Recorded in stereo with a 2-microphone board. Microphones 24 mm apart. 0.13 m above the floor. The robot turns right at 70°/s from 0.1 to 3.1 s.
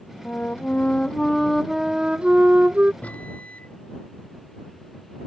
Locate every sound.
0.2 s a flute: 85° left; by 2.9 s 85° right
3.0 s a microwave: 75° left (ahead or behind)